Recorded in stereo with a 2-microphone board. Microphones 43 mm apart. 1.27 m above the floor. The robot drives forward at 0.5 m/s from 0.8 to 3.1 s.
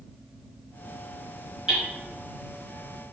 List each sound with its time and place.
1.7 s hammering: 15° right (ahead or behind), 2.5 m